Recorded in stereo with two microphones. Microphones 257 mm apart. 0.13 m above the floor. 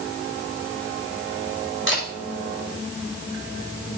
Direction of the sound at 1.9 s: 45° left (ahead or behind).